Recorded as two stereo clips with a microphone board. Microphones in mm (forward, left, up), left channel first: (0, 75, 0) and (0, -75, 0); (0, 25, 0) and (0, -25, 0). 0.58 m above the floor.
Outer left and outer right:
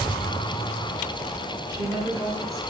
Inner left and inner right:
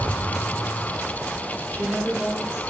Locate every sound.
1.7 s a woman speaking: 20° left (ahead or behind), 2.5 m